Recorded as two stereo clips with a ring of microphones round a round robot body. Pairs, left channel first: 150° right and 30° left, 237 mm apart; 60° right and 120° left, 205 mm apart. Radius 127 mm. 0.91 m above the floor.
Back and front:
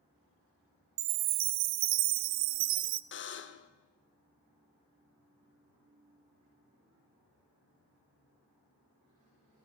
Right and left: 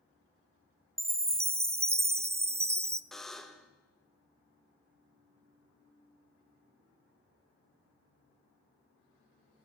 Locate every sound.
1.0 s a chime: 40° left, 0.6 m
3.1 s a buzzer: 150° right, 1.0 m